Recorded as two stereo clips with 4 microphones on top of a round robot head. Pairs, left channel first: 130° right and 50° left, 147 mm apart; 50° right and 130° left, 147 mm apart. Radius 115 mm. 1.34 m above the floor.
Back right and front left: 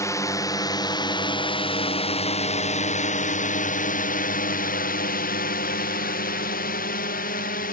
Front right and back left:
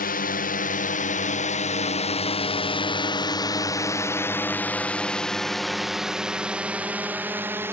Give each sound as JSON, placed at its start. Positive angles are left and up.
{"t": 0.0, "sound": "a drone", "azimuth_deg": -60}